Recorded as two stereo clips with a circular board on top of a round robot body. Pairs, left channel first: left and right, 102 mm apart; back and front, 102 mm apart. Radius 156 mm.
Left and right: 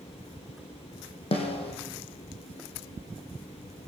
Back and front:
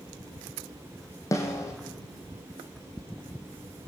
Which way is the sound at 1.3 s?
120° left.